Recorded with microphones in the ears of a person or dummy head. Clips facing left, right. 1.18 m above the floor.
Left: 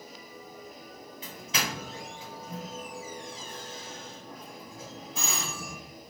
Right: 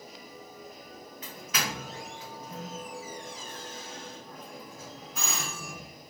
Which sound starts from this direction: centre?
A doorbell, at 1.2 s.